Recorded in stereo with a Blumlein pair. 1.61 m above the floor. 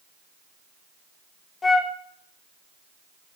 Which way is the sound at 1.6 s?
15° left.